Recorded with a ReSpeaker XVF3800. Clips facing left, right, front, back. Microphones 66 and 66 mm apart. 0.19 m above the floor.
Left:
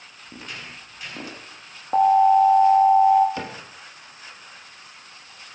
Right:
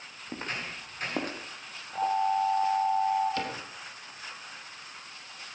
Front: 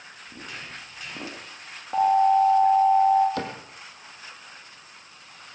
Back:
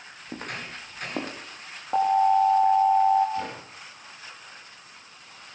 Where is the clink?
No clink in this recording.